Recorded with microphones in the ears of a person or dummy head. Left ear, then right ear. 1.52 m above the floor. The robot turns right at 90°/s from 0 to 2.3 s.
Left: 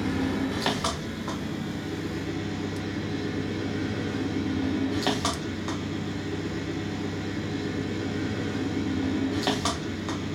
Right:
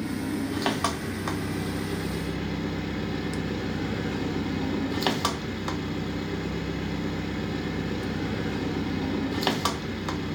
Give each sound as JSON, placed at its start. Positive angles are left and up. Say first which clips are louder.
{"t": 0.0, "sound": "an engine running", "louder": "left 3 dB", "azimuth_deg": 130, "distance_m": 1.0}